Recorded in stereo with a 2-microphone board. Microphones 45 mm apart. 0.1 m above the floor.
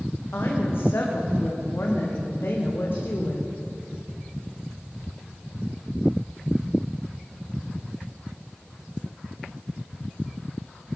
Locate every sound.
0.3 s a woman speaking: 60° left (ahead or behind), 6 m